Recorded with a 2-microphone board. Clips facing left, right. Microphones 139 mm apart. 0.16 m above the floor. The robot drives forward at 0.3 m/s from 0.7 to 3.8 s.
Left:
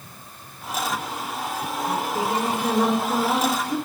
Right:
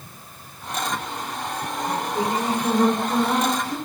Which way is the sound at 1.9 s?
10° left (ahead or behind).